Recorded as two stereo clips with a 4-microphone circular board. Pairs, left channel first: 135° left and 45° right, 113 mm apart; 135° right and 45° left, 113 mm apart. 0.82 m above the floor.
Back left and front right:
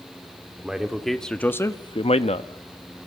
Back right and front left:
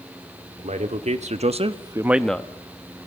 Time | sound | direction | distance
0.6 | a man speaking | 40° left | 2 m